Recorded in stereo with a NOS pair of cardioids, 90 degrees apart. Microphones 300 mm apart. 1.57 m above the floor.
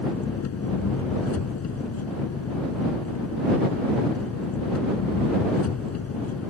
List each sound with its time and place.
0.0 s an engine running: 55° left